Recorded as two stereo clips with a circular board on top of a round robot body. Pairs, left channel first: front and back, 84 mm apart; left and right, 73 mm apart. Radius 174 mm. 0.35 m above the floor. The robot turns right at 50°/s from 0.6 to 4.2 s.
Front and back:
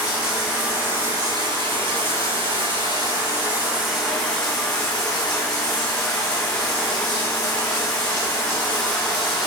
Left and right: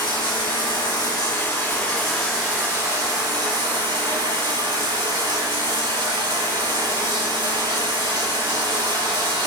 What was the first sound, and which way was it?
Running water, 105° left.